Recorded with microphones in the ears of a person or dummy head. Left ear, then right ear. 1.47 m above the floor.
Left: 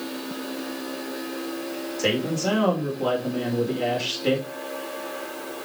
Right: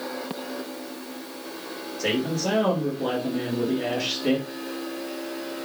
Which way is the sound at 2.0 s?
40° left (ahead or behind).